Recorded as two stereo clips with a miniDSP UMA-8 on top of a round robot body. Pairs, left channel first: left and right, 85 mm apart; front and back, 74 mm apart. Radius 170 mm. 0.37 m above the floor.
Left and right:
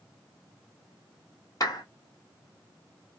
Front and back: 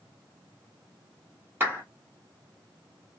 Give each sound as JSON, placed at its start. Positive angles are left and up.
{"t": 1.6, "sound": "a clap", "azimuth_deg": 125, "distance_m": 1.8}